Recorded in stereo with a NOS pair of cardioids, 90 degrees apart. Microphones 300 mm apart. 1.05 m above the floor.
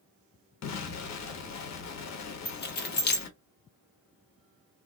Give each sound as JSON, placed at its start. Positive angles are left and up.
{"t": 0.6, "sound": "an explosion", "azimuth_deg": 65, "distance_m": 1.2}
{"t": 2.5, "sound": "keys jangling", "azimuth_deg": 35, "distance_m": 1.1}